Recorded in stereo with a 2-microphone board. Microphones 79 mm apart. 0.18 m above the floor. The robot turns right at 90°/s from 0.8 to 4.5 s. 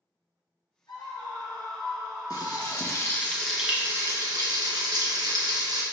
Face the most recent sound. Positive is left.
turn(degrees=-90)